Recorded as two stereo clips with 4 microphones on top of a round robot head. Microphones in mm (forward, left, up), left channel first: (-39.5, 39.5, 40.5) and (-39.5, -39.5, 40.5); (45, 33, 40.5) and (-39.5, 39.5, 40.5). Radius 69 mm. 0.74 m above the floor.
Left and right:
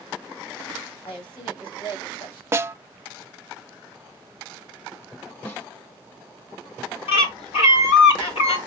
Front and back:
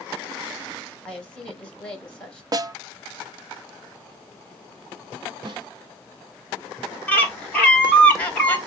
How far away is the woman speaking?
About 6.5 m.